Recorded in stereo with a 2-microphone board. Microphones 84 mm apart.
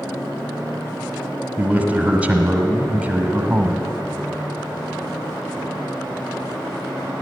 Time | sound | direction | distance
1.6 | a man speaking | 15° right (ahead or behind) | 1.2 m